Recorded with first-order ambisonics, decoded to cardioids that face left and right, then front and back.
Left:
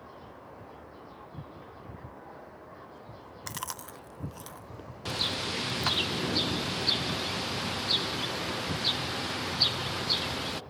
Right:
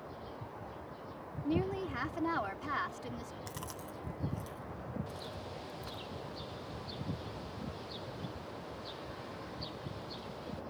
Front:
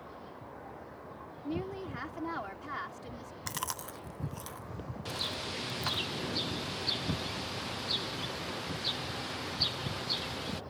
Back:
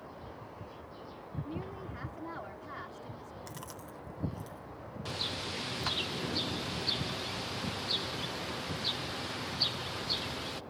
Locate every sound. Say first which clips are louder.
1.4 s a woman speaking: right 11 dB, front 6 dB; 70° right
3.5 s chewing: left 6 dB, front 7 dB; 45° left
5.0 s a bird: left 14 dB, even; 90° left